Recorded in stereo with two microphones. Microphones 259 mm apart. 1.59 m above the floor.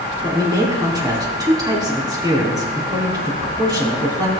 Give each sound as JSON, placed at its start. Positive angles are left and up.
{"t": 0.2, "sound": "a man speaking", "side_deg": -15, "distance_m": 3.0}